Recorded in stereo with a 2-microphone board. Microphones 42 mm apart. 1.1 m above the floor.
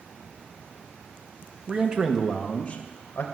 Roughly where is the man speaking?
Right.